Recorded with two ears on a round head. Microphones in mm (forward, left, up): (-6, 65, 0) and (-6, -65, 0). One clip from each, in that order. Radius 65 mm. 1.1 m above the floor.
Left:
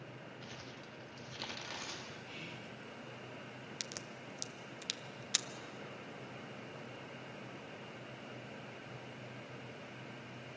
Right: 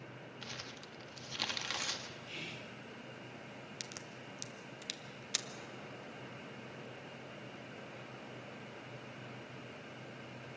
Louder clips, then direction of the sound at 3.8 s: Left 3 dB; 10° left (ahead or behind).